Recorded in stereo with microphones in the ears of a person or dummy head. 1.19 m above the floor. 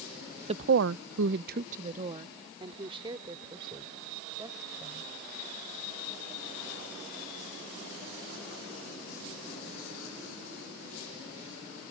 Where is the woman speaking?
35° right (ahead or behind); by 5.1 s 20° right (ahead or behind).